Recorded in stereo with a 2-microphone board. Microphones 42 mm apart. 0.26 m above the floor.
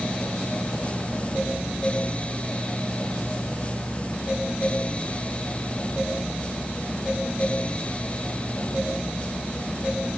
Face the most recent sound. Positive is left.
No sound to turn to.